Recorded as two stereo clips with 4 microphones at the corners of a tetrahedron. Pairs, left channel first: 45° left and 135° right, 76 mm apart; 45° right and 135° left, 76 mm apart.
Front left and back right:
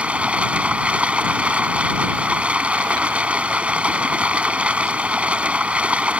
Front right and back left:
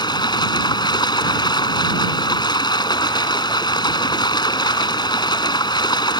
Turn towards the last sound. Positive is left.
turn(degrees=-60)